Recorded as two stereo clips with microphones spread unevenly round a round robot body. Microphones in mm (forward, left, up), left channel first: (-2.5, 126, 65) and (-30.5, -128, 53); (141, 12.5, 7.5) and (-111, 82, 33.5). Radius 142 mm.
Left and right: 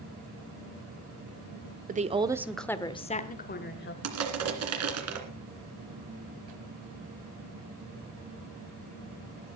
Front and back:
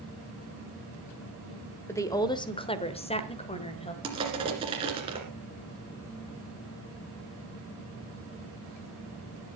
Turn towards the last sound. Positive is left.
turn(degrees=-120)